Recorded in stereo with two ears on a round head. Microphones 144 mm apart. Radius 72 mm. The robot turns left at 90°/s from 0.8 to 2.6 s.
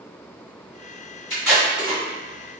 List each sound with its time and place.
1.3 s tape being pulled: 10° left (ahead or behind), 1.5 m; by 2.0 s 35° right (ahead or behind), 1.5 m